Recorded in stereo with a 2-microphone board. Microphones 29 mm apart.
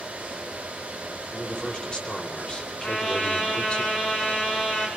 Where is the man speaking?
30° left (ahead or behind), 4 m; by 3.8 s 40° left (ahead or behind), 2.5 m.